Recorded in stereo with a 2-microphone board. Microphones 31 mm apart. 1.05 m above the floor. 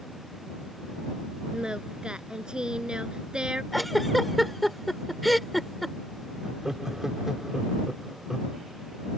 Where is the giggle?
5° left (ahead or behind).